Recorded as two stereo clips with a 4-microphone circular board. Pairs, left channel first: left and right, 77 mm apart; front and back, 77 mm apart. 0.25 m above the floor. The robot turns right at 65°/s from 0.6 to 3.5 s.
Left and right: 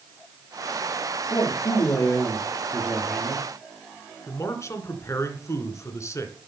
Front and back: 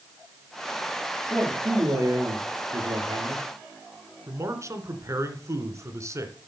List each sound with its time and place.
1.3 s a man speaking: 85° left, 6.5 m; by 3.4 s 135° right, 6.5 m
4.3 s a man speaking: 135° left, 2.5 m